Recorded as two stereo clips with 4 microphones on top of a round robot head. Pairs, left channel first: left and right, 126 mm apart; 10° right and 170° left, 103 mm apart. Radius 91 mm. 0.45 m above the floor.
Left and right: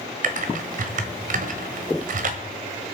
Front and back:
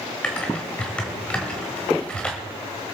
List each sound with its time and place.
0.2 s typing on a keyboard: 90° right, 1.3 m